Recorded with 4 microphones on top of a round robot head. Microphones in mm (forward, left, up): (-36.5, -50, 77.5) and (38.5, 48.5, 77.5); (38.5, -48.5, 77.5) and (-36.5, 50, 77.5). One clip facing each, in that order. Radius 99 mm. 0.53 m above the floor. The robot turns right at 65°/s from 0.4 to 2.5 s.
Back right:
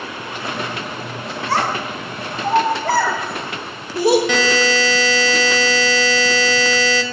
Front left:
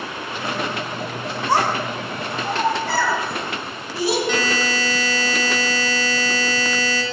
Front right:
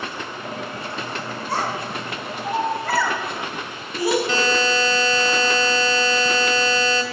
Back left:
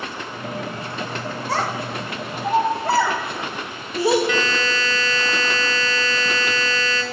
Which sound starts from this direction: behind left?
A child speaking, at 1.5 s.